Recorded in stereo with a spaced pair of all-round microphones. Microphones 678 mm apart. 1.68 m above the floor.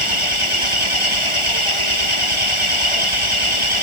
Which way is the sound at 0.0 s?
45° right (ahead or behind).